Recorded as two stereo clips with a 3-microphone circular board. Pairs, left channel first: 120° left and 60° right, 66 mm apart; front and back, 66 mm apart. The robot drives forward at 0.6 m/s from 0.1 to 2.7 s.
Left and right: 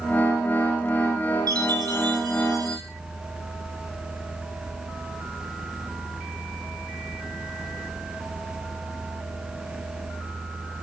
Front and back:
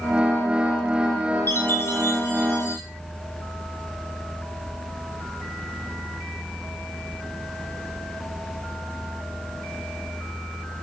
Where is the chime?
50° right, 4.5 m; by 2.8 s 60° right, 4 m.